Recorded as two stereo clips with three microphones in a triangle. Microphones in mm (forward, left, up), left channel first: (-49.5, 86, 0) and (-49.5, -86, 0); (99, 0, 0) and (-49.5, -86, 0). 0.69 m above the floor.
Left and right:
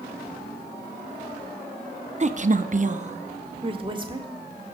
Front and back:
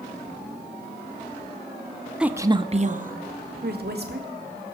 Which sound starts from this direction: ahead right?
A woman speaking, at 2.2 s.